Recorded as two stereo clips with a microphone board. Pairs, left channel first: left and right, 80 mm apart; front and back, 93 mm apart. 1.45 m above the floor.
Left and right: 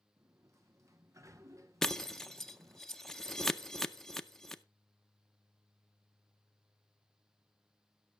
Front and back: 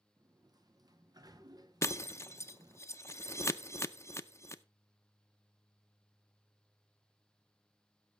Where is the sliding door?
135° right, 0.9 m.